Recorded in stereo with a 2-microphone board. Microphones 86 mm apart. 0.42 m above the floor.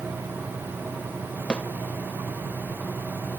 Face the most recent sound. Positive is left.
turn(degrees=10)  # may be behind; listen again after turning